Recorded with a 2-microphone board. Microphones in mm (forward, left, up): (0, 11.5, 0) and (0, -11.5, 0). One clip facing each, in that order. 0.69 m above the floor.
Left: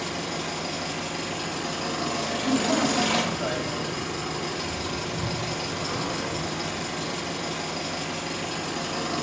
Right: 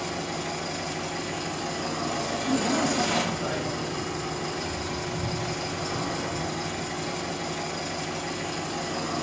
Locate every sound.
0.0 s an engine running: 50° left (ahead or behind), 4.5 m
2.4 s a man speaking: 65° left (ahead or behind), 3.5 m